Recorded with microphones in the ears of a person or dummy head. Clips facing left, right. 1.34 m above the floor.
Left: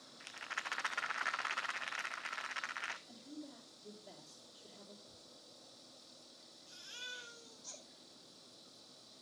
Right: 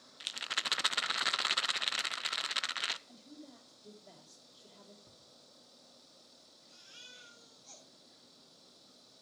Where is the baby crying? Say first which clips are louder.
Left 6 dB; 85° left, 4.5 m.